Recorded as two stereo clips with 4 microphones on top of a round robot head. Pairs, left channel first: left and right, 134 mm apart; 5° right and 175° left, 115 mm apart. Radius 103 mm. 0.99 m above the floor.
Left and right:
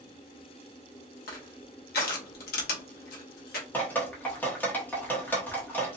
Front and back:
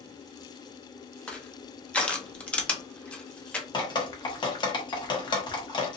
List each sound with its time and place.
1.3 s crushing: 75° left, 0.6 m
3.7 s dripping: 20° left, 1.0 m